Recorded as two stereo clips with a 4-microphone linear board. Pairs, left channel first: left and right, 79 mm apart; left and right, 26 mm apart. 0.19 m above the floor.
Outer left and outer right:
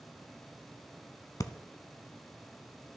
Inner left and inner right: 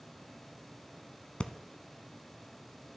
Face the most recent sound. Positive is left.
turn(degrees=45)  # may be behind; listen again after turning